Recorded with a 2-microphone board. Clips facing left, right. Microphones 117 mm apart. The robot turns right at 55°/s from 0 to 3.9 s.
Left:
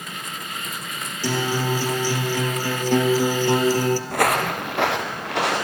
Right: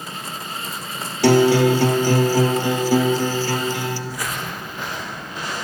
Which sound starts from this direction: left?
Footsteps, at 4.1 s.